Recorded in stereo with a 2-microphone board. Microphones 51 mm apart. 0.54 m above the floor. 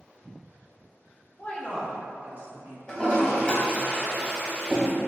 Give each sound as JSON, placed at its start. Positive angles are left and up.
{"t": 1.4, "sound": "a woman speaking", "side_deg": 35, "distance_m": 0.8}
{"t": 2.9, "sound": "a toilet flushing", "side_deg": 15, "distance_m": 1.0}